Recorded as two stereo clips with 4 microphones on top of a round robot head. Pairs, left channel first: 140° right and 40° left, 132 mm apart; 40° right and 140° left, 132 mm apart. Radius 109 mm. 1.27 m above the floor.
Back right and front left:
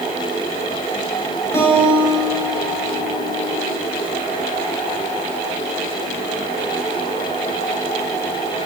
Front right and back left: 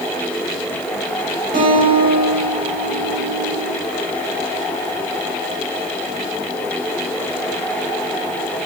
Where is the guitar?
150° left, 6.5 m.